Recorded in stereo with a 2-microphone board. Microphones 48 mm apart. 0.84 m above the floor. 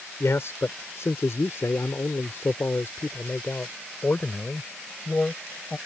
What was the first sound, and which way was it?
A man speaking, 65° left (ahead or behind).